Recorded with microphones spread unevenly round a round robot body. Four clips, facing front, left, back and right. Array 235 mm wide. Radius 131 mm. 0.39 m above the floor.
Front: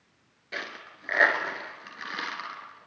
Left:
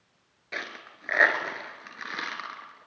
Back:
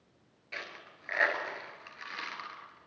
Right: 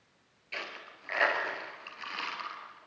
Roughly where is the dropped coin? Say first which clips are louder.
Left 4 dB, front 6 dB; ahead left.